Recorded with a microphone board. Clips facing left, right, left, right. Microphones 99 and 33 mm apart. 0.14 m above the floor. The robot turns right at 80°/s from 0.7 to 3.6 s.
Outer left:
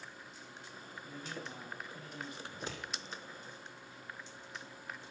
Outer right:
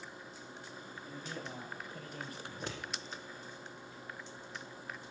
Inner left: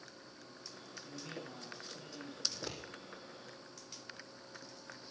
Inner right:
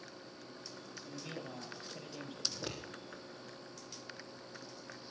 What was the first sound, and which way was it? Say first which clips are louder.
A man speaking: outer right 1 dB, inner right 2 dB; 170° left.